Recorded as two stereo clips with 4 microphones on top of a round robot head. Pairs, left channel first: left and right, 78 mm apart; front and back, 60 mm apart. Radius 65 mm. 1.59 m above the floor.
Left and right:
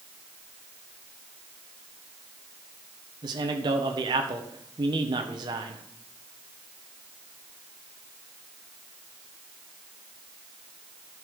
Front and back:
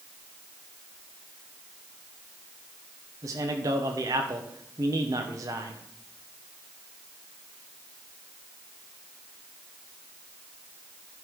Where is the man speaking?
130° right, 1.3 m.